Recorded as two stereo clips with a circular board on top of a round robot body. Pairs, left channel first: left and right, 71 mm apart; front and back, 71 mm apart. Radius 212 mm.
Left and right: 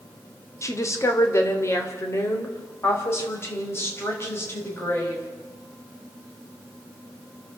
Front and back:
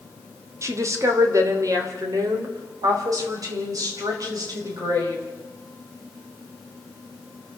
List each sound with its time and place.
0.6 s a woman speaking: 135° left, 2.5 m; by 5.2 s 150° left, 5.5 m